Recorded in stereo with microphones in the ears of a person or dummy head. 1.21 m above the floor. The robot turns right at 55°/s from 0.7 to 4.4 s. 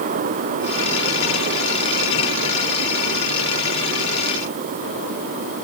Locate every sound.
Only background noise.